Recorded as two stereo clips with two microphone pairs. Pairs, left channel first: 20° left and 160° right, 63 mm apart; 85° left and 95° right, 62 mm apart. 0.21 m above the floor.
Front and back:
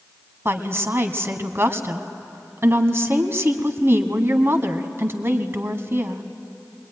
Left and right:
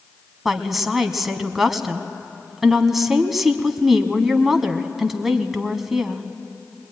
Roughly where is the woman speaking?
Behind.